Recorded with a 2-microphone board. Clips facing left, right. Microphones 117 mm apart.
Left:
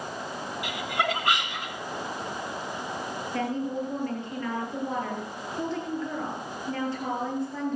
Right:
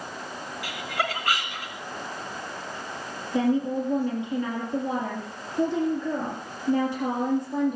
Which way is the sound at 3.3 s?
15° right (ahead or behind).